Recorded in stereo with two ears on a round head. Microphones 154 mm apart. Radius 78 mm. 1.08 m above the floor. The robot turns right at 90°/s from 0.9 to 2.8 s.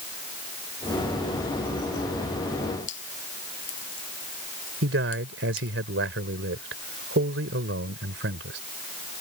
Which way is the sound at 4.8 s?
85° right.